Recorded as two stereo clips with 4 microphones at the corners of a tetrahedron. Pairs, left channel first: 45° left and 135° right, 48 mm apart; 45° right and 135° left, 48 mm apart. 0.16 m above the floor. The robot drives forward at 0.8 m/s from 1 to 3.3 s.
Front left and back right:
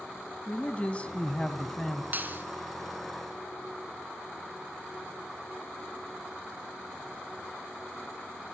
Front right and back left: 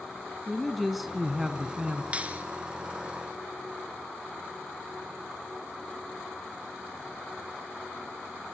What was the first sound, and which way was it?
A man speaking, 50° left.